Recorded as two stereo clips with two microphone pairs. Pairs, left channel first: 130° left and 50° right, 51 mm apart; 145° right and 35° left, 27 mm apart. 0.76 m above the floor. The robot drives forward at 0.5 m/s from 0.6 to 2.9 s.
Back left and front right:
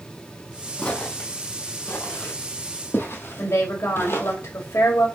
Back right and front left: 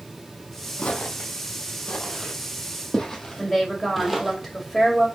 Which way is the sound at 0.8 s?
170° right.